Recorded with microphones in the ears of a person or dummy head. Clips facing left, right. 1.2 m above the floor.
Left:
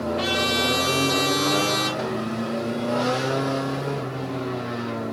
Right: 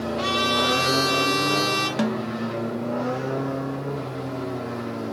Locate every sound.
0.2 s a trumpet: 20° left (ahead or behind), 4 m
2.0 s a snare drum: 80° right, 1.0 m